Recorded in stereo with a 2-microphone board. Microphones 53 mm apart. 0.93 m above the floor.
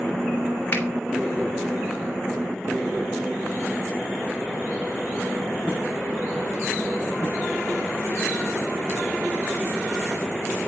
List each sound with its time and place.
0.7 s a finger snap: 35° left (ahead or behind), 2.5 m